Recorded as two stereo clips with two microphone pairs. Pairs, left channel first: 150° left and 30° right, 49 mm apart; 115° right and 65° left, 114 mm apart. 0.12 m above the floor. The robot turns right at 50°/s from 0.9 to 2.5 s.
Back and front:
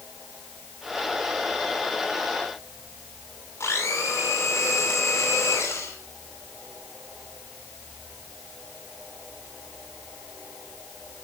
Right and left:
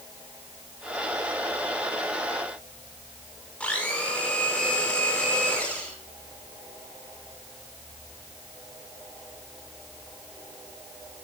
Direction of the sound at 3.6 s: 165° left.